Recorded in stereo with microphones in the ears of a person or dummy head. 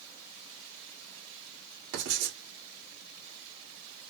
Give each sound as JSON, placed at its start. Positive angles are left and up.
{"t": 1.9, "sound": "writing", "side_deg": -70, "distance_m": 2.5}